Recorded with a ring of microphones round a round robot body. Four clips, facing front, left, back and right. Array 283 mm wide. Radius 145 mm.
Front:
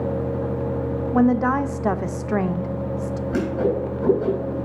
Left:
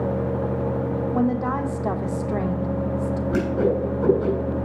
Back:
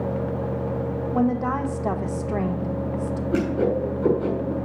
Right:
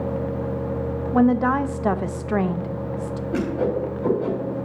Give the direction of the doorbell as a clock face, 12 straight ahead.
I don't hear a doorbell.